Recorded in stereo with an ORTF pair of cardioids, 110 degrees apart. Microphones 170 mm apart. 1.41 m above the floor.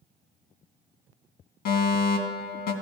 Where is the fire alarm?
70° left, 2.5 m.